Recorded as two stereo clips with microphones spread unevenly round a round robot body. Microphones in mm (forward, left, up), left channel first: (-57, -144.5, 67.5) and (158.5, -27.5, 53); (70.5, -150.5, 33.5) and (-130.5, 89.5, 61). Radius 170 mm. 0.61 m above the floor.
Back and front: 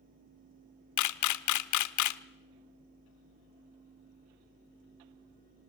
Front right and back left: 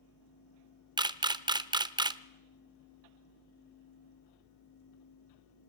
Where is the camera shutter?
150° right, 0.9 m.